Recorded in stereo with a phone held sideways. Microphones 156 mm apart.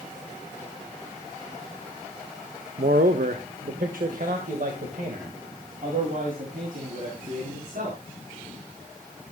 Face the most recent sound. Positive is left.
turn(degrees=-70)  # may be behind; listen again after turning